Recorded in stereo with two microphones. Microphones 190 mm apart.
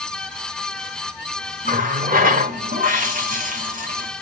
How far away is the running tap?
About 0.9 m.